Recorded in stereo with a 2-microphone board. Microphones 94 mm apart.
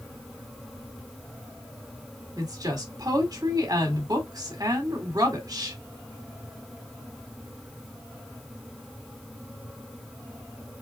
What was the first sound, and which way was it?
A woman speaking, 40° right (ahead or behind).